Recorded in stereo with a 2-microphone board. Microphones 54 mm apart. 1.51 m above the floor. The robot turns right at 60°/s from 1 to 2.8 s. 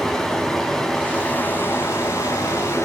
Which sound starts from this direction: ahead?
Running water, at 0.0 s.